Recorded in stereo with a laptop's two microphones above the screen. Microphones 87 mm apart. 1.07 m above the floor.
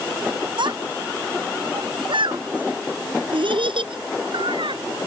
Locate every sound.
0.6 s a child speaking: 70° right (ahead or behind); by 4.8 s 85° right